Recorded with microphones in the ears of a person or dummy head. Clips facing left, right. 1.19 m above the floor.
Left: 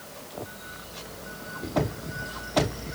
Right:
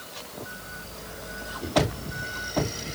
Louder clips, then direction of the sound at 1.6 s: Right 1 dB; 10° right (ahead or behind).